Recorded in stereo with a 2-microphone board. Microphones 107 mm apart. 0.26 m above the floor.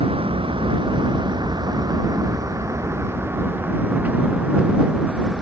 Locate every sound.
0.0 s a vehicle: 60° right (ahead or behind); by 5.4 s 5° right (ahead or behind)